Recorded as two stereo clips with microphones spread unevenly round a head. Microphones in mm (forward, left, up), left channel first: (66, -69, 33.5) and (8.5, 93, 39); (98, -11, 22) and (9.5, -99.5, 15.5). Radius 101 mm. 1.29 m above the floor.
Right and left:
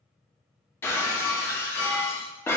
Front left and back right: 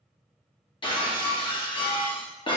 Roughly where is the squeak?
I don't hear a squeak.